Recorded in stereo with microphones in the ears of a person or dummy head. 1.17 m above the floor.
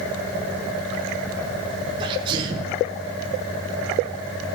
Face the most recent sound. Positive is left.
turn(degrees=-25)  # may be behind; listen again after turning